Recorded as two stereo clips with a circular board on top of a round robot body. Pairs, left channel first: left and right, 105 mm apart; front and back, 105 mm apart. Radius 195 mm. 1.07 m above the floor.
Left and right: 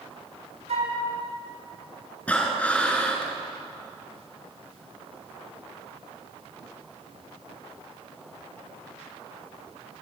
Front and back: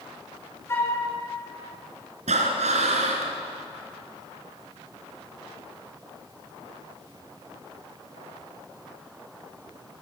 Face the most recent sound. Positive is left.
turn(degrees=170)